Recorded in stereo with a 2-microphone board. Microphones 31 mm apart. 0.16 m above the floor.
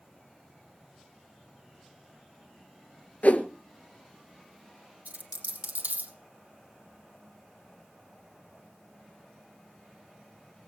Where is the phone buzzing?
I don't hear a phone buzzing.